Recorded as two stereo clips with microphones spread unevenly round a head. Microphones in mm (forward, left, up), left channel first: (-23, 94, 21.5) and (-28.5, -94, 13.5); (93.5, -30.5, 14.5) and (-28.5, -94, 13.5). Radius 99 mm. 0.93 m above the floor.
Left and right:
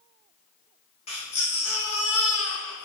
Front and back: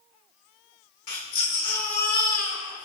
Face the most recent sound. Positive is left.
turn(degrees=25)